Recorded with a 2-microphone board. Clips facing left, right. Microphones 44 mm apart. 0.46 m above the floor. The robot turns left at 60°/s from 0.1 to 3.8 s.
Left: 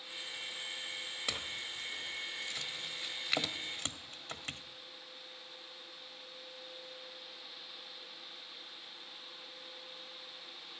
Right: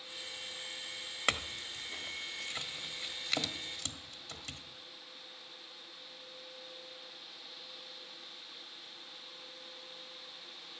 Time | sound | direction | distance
1.3 | a clink | 65° right (ahead or behind) | 1.1 m